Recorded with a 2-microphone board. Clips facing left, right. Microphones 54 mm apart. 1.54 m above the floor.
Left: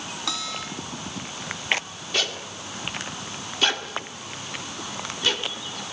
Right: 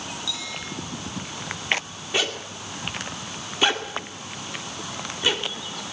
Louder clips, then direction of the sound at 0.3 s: Left 2 dB; 60° left (ahead or behind).